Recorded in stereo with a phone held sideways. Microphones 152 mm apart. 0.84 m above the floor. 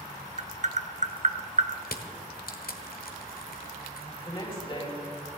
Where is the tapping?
50° right (ahead or behind), 0.8 m.